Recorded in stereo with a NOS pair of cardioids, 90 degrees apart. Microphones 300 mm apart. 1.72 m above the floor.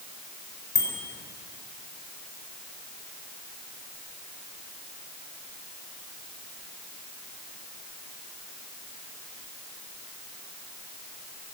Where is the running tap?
I don't hear a running tap.